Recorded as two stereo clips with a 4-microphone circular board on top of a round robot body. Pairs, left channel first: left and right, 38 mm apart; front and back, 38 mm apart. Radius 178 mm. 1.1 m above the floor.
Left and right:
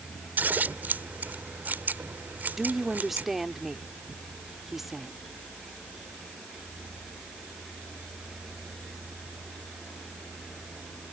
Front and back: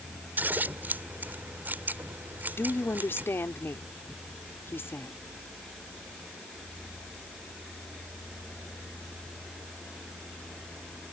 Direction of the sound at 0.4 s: 135° right.